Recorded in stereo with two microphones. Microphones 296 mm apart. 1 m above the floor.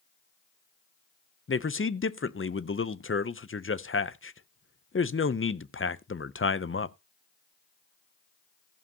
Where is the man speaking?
40° left (ahead or behind), 0.5 m.